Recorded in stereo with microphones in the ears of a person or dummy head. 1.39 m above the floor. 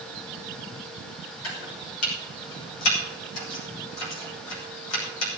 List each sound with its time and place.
1.4 s chopping: 85° left, 6 m